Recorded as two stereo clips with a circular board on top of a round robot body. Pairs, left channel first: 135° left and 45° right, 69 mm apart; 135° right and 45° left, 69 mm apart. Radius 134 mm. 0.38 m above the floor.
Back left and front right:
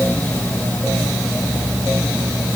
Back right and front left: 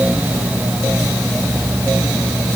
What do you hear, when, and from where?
Only background noise.